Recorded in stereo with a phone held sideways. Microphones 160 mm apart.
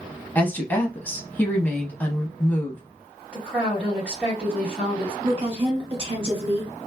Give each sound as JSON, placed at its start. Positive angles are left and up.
{"t": 0.3, "sound": "a woman speaking", "side_deg": 10, "distance_m": 0.6}
{"t": 3.3, "sound": "a woman speaking", "side_deg": -5, "distance_m": 2.0}
{"t": 5.2, "sound": "a woman speaking", "side_deg": -35, "distance_m": 1.1}